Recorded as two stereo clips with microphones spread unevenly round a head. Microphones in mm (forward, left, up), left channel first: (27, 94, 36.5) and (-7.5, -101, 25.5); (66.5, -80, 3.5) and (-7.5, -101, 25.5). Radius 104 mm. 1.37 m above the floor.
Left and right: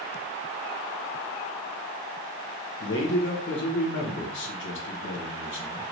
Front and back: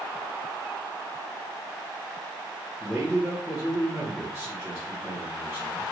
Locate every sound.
2.8 s a man speaking: 105° left, 1.2 m